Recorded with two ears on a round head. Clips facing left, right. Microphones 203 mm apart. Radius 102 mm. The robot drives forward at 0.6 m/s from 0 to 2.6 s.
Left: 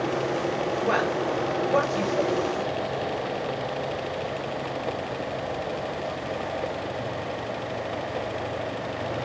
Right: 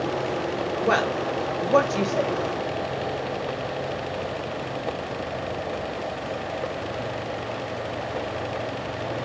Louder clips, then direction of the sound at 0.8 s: Right 2 dB; 55° right (ahead or behind).